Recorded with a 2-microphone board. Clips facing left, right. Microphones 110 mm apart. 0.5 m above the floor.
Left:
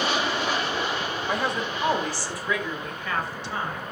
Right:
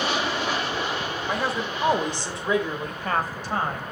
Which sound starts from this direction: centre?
A woman speaking, at 1.3 s.